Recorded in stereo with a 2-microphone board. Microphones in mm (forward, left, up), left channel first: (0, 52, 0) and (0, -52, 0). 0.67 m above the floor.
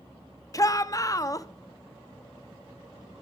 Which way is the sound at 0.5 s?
35° left (ahead or behind).